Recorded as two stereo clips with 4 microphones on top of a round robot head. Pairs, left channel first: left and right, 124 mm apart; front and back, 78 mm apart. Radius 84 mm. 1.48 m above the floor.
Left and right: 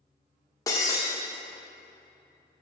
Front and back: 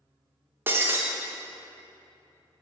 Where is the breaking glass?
145° left, 0.7 m.